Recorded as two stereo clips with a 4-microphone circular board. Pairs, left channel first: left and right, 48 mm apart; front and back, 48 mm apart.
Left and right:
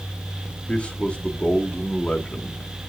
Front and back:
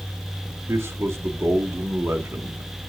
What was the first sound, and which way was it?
A man speaking, 155° left.